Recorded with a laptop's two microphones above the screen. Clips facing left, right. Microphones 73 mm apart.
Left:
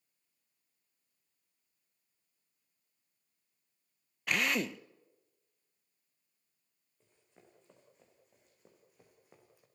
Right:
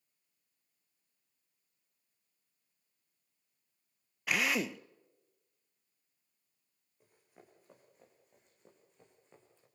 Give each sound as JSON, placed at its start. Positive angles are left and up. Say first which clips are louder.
{"t": 4.3, "sound": "a drill", "louder": "even", "side_deg": -5, "distance_m": 0.5}
{"t": 7.0, "sound": "running footsteps", "louder": "right 3 dB", "side_deg": -10, "distance_m": 5.0}